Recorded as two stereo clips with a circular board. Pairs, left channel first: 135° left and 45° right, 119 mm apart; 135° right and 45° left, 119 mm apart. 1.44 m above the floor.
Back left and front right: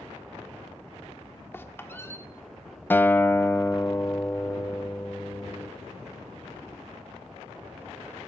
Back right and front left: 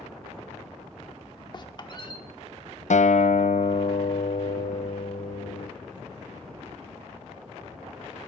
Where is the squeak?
165° right, 1.2 m.